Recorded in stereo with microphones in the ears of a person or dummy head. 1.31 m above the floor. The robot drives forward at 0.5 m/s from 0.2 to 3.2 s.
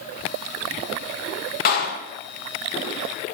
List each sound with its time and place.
1.6 s a clap: 50° left (ahead or behind), 0.7 m